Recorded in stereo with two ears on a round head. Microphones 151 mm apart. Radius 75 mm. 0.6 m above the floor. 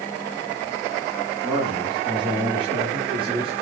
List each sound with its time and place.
1.4 s a man speaking: 20° right (ahead or behind), 7 m; by 3.5 s 30° right (ahead or behind), 9 m